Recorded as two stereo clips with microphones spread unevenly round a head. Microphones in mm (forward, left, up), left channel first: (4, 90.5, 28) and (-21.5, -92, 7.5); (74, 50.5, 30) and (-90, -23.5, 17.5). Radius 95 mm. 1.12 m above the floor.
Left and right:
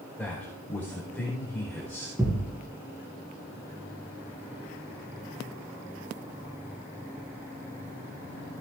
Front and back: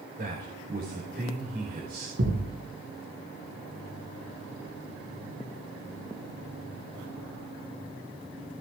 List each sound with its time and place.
0.2 s a man speaking: 165° left, 4.5 m
2.2 s a thud: 175° right, 4 m